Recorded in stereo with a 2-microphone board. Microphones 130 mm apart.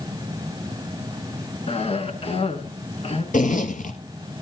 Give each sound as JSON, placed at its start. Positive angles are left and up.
{"t": 1.7, "sound": "a cough", "side_deg": 50, "distance_m": 3.0}
{"t": 3.3, "sound": "a zipper", "side_deg": 85, "distance_m": 1.8}